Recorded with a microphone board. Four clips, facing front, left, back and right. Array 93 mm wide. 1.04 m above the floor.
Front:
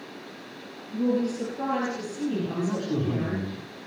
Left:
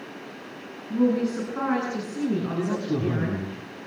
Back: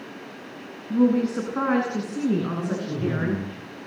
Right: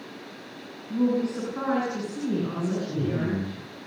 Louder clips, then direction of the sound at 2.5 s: Left 3 dB, front 1 dB; 75° left.